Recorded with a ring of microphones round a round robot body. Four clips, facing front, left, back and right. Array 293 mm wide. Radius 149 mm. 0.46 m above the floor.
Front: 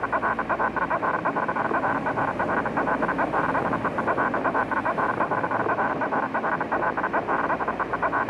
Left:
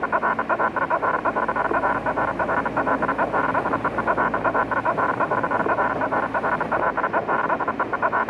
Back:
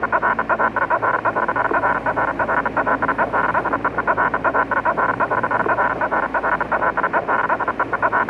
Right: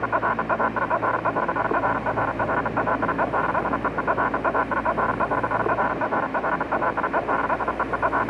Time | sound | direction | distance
0.0 | an insect | 175° left | ?